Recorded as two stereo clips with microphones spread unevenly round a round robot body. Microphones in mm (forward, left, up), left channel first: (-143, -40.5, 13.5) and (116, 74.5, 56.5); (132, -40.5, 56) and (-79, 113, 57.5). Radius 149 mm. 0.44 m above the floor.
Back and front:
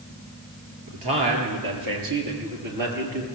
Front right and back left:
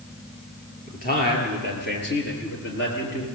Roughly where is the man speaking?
Ahead.